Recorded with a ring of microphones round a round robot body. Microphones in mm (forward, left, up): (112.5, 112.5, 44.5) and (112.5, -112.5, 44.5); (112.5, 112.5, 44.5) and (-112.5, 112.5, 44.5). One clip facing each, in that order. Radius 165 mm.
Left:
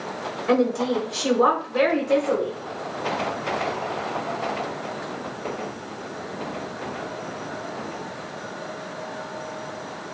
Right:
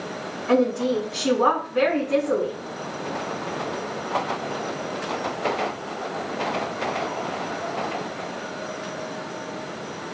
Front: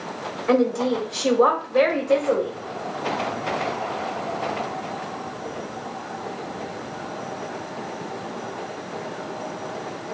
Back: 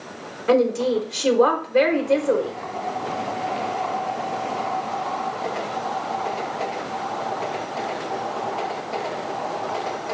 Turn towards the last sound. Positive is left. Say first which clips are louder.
# even, back 1 dB
turn(degrees=125)